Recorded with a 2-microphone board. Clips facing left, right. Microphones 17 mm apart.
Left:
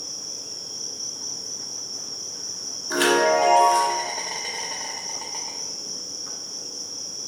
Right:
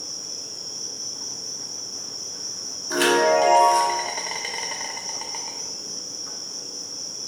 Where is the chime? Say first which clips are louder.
Right 1 dB; 5° right (ahead or behind), 1.0 m.